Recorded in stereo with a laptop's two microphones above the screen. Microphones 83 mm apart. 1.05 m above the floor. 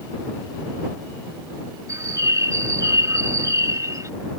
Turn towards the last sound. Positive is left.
turn(degrees=-40)  # may be behind; listen again after turning